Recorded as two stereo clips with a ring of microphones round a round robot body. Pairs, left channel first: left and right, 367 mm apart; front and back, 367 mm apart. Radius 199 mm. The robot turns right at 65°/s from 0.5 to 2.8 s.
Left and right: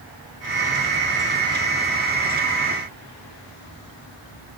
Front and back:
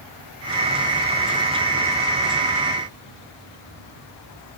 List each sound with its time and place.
Only background noise.